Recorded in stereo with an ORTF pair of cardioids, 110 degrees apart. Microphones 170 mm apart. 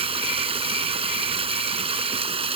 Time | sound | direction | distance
0.0 | running water | 35° right | ?